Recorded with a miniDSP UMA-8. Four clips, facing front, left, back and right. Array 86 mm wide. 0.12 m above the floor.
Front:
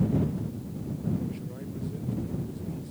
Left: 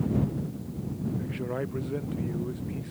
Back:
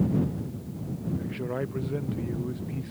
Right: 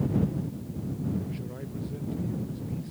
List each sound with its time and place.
1.2 s a man speaking: 140° left